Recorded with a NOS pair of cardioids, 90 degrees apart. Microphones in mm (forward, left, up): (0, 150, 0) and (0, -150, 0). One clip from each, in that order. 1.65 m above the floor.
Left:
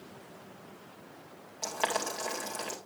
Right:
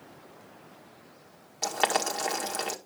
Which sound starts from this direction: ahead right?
Boiling, at 1.6 s.